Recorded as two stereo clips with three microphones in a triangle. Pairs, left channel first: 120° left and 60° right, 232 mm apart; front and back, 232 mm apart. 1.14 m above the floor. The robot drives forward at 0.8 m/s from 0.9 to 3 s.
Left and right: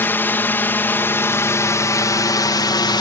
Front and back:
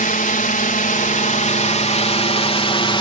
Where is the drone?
40° left; by 3.0 s 55° left.